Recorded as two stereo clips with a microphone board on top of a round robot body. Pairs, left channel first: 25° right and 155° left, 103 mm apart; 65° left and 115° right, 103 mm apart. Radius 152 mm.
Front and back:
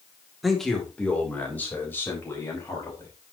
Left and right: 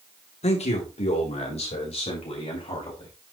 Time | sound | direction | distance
0.4 | a man speaking | 65° left | 2.5 m